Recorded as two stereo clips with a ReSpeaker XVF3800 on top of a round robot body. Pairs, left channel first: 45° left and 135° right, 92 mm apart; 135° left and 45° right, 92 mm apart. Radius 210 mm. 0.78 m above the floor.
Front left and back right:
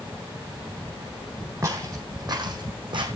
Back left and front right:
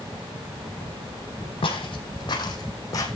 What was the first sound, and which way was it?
Footsteps, 165° left.